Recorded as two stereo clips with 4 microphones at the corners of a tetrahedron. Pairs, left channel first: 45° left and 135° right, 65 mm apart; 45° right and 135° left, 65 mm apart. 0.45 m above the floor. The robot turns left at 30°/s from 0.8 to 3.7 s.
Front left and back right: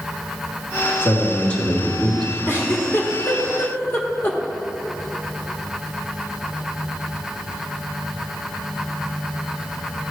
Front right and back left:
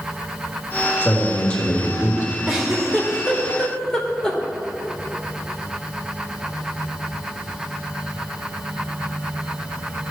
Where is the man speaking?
10° left, 1.5 m; by 2.4 s 30° right, 1.5 m.